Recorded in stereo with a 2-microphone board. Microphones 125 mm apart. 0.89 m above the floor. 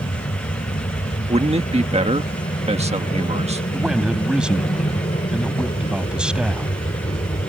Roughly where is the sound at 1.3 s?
Right.